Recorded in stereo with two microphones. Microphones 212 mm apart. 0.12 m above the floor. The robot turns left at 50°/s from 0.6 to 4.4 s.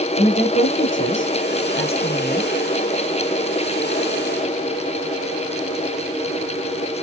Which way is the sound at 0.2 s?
120° left.